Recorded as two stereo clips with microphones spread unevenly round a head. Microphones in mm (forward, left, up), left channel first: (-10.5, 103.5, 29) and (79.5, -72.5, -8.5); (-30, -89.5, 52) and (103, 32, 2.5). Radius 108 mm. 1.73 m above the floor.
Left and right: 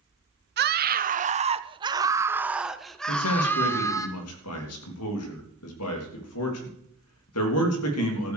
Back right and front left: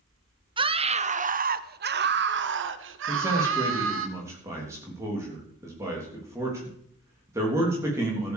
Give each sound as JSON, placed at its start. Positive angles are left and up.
{"t": 0.6, "sound": "a scream", "azimuth_deg": -25, "distance_m": 1.3}
{"t": 3.1, "sound": "a man speaking", "azimuth_deg": 120, "distance_m": 3.5}